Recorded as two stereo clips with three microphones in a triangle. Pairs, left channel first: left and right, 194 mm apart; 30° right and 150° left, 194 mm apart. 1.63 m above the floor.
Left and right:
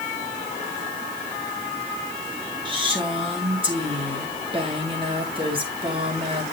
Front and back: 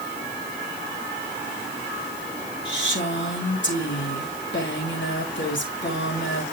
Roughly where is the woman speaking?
Ahead right.